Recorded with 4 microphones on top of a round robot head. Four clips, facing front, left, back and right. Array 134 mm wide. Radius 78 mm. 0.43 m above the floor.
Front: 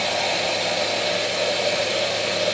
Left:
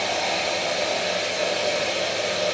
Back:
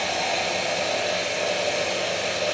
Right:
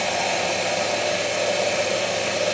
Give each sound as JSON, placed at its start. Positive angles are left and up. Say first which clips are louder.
{"t": 0.0, "sound": "running water", "louder": "right 2 dB, front 2 dB", "azimuth_deg": -60, "distance_m": 4.0}